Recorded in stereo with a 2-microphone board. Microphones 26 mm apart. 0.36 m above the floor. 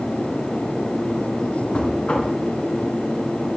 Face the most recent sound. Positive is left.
turn(degrees=45)  # may be behind; listen again after turning